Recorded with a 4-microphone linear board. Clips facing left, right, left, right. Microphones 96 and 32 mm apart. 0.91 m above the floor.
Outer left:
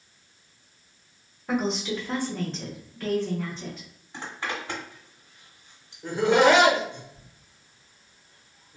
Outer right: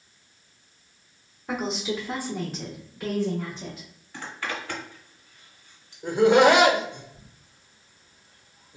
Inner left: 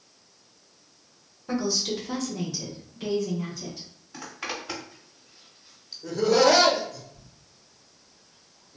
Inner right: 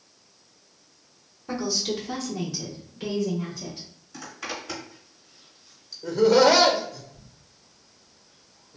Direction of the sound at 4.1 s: 25° left (ahead or behind).